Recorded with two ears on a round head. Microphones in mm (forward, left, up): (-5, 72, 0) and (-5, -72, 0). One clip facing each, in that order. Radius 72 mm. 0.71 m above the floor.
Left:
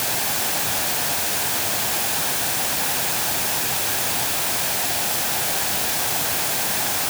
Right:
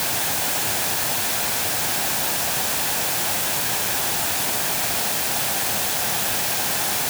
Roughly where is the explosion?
No explosion in this recording.